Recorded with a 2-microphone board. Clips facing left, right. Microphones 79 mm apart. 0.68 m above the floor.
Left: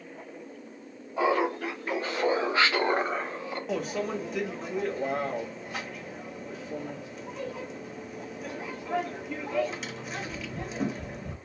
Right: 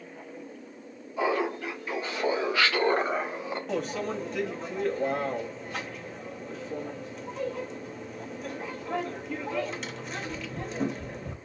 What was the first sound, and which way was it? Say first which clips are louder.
Laughter: left 2 dB; 65° left (ahead or behind).